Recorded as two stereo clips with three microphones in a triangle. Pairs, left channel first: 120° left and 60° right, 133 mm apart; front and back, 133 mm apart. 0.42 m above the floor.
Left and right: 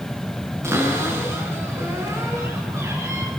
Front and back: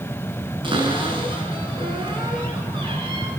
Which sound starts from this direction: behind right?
A cupboard door, at 0.6 s.